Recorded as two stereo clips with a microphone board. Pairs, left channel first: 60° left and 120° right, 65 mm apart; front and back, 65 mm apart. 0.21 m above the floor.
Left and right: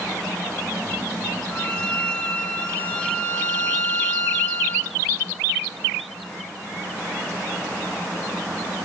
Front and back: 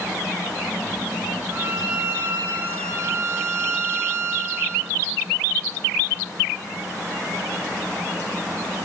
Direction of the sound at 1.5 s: 125° left.